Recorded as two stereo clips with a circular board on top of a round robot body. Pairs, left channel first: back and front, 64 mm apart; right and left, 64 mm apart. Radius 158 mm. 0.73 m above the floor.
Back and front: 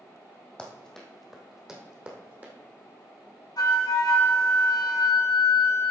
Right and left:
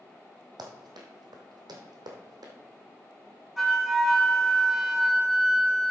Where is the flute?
Straight behind, 4 m.